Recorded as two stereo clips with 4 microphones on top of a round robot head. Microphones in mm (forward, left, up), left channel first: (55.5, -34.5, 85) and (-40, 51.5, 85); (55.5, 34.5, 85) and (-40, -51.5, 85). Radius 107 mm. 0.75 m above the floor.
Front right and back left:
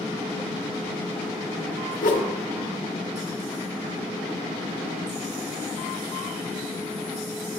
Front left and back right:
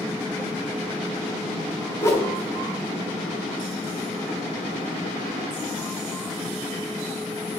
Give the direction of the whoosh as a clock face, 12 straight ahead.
1 o'clock.